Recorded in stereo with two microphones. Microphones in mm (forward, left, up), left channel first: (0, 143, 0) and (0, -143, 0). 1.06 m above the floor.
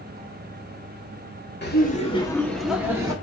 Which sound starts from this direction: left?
Laughter, at 1.6 s.